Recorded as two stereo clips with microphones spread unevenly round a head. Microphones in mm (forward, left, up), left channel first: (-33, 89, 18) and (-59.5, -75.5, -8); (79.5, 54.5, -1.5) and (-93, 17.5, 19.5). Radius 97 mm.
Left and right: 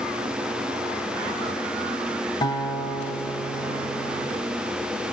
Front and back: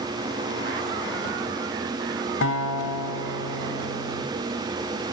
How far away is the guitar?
About 1.6 m.